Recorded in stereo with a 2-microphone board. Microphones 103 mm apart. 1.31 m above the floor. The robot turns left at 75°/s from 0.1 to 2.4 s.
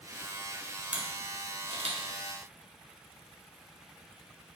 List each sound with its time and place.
0.9 s a camera shutter: 10° right (ahead or behind), 0.6 m; by 2.0 s 70° right (ahead or behind), 0.6 m